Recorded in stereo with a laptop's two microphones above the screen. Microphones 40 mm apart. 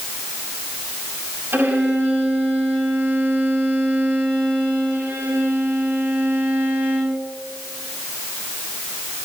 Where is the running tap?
I don't hear a running tap.